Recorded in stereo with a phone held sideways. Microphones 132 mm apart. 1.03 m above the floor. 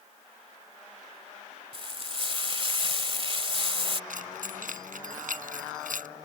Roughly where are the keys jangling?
Right.